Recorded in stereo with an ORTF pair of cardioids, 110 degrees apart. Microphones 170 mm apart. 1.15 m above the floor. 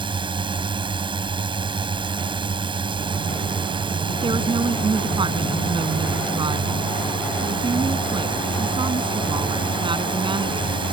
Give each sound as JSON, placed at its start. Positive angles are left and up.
{"t": 0.0, "sound": "a drone", "azimuth_deg": -30}
{"t": 4.2, "sound": "a woman speaking", "azimuth_deg": -30}